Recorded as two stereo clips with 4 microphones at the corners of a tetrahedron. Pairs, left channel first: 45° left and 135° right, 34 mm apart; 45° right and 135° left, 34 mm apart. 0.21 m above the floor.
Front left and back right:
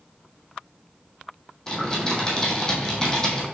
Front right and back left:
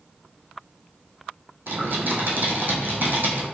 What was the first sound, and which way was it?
Typing on a keyboard, 115° left.